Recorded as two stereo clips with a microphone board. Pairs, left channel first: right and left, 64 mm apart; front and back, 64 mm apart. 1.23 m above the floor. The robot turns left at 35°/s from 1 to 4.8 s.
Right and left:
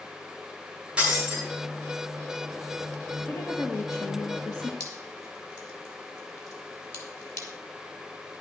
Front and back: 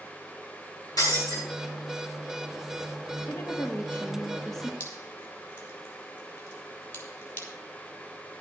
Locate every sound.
1.0 s breaking glass: 15° left, 6.5 m; by 1.4 s straight ahead, 6.5 m
3.3 s a woman speaking: 35° right, 1.7 m; by 4.7 s 85° right, 1.7 m
4.8 s dripping: 55° right, 3 m